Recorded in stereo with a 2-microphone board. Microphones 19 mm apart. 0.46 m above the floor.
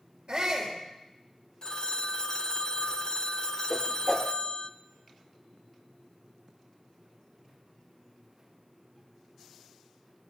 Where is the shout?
50° right (ahead or behind), 1.7 m.